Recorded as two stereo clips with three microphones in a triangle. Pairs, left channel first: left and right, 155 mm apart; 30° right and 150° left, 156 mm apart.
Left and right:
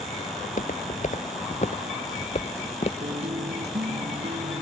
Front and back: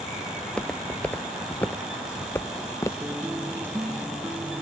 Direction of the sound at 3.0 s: 130° right.